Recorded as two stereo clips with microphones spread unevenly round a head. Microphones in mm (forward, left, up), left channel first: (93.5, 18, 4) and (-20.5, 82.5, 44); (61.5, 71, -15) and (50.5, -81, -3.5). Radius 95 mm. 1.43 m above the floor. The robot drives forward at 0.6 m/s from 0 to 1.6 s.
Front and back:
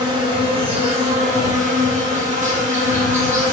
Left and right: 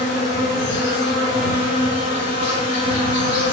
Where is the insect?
90° left, 1.8 m; by 3.5 s 115° left, 2 m.